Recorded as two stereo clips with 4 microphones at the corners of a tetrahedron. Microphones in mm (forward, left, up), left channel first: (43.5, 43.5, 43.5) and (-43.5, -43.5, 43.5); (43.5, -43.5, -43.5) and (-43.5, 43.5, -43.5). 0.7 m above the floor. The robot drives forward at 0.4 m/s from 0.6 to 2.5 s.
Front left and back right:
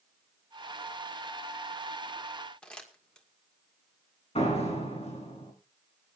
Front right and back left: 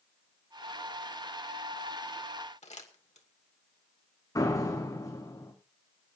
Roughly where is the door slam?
Ahead.